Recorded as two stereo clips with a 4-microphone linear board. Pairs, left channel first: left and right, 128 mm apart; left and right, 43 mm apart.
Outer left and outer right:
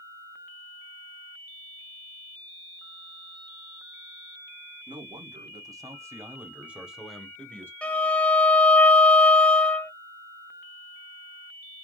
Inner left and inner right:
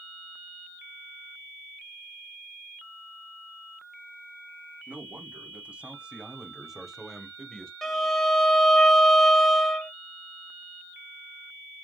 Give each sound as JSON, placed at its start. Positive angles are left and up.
{"t": 4.9, "sound": "a man speaking", "side_deg": -40, "distance_m": 2.0}
{"t": 7.8, "sound": "a violin", "side_deg": 10, "distance_m": 0.7}